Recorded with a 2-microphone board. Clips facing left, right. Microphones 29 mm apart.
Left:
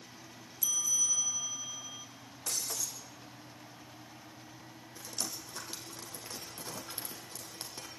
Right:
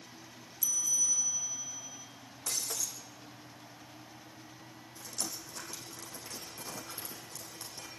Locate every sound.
0.6 s a bell: 30° left (ahead or behind), 1.7 m
2.5 s breaking glass: 10° left (ahead or behind), 3.5 m
5.0 s dripping: 55° left (ahead or behind), 5 m